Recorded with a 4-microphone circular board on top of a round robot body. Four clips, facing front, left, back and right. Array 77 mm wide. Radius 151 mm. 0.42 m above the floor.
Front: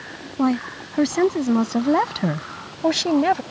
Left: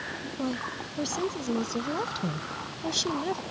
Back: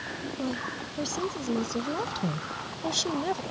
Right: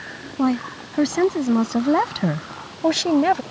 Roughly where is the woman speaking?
Ahead right.